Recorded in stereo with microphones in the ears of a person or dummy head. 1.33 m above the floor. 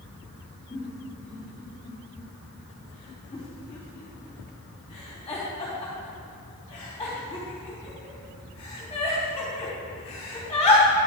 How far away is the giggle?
About 3 m.